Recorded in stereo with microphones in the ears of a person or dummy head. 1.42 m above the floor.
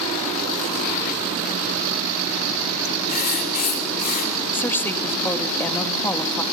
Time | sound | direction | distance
3.1 | writing | 45° left (ahead or behind) | 3 m
4.5 | a woman speaking | 15° left (ahead or behind) | 1.8 m